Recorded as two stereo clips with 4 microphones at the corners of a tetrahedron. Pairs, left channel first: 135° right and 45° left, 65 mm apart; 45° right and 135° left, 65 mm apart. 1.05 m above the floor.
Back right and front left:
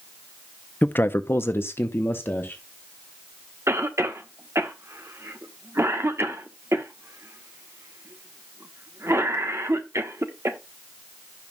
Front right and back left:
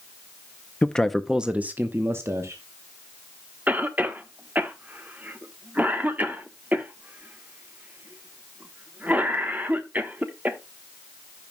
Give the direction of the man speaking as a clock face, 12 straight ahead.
3 o'clock.